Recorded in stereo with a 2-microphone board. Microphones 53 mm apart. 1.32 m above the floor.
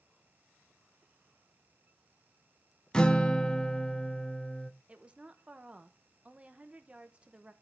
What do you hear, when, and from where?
2.9 s a guitar: 15° left (ahead or behind), 0.6 m
4.9 s a woman speaking: 20° right (ahead or behind), 0.9 m